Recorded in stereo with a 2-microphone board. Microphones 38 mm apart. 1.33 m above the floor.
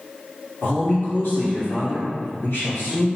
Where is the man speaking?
65° left (ahead or behind), 1.2 m.